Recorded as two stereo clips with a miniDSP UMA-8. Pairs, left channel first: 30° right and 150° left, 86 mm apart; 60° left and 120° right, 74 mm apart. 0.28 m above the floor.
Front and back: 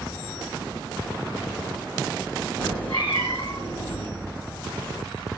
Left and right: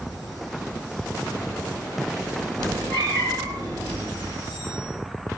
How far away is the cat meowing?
About 2.0 m.